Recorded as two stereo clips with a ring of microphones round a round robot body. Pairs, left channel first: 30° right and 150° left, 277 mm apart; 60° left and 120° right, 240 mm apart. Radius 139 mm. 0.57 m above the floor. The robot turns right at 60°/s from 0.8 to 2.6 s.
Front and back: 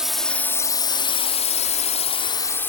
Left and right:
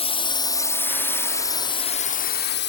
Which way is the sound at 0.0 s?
65° left.